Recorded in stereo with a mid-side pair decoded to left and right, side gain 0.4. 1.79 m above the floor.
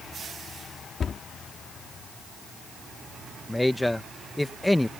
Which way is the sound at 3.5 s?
10° left.